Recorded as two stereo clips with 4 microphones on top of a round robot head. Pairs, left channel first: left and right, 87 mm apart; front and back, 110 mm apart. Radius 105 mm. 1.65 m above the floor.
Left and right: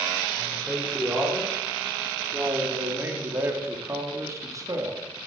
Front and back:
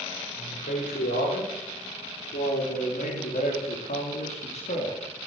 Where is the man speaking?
5° right, 5 m; by 5.0 s 40° right, 3 m.